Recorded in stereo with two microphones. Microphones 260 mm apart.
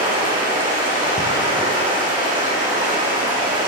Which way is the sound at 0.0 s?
15° right (ahead or behind).